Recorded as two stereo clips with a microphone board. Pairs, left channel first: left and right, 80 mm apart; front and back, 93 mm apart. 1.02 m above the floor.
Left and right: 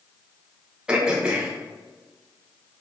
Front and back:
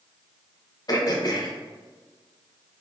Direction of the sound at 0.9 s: 15° right.